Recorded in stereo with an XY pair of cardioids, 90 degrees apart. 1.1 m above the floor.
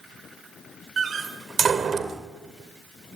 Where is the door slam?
50° right, 2.5 m.